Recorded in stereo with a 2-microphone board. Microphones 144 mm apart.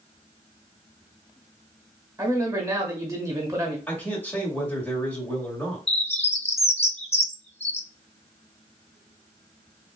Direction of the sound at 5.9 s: 50° left (ahead or behind).